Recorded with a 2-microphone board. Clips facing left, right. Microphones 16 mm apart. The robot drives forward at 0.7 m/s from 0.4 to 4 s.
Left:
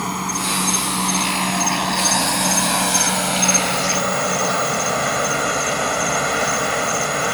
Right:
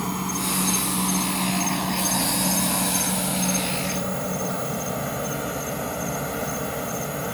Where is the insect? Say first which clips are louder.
Left 4 dB; 25° left (ahead or behind); by 7.4 s 45° left (ahead or behind).